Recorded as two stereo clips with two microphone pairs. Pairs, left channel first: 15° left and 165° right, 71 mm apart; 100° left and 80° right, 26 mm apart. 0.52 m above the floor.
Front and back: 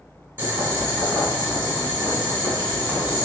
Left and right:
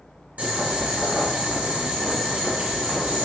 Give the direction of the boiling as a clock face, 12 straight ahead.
4 o'clock.